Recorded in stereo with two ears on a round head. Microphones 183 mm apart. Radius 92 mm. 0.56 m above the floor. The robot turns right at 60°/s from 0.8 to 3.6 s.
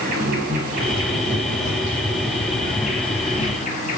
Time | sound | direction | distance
0.0 | an insect | 125° right | 6 m